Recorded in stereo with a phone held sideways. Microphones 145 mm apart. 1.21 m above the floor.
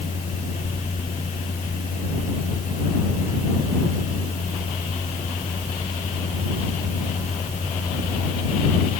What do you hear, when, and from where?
0.0 s a fan: 55° left (ahead or behind)